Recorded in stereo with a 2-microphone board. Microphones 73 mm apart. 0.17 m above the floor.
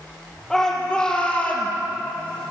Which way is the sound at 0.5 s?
10° left (ahead or behind).